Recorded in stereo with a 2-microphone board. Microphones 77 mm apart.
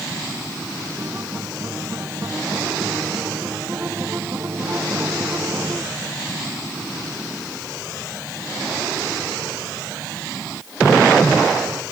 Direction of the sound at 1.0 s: 35° right (ahead or behind).